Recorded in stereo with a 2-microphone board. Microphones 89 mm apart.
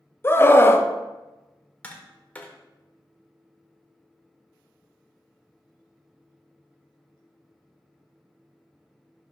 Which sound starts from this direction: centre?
Tapping, at 1.8 s.